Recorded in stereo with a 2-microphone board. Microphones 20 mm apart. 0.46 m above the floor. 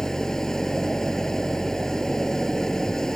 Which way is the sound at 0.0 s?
25° left (ahead or behind).